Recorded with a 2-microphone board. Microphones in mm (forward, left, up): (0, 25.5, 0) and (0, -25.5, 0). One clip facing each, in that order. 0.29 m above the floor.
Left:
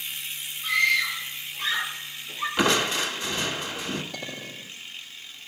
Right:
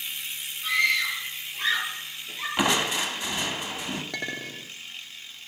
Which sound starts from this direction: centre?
Crushing, at 2.6 s.